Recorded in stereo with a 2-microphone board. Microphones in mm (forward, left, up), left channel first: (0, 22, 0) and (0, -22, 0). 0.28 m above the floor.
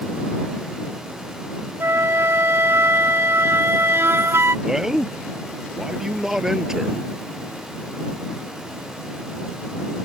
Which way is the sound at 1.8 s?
80° right.